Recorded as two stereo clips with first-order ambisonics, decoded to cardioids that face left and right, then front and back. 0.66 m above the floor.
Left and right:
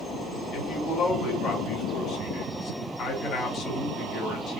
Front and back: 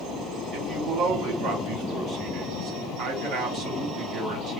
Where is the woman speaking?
140° left, 1.8 m.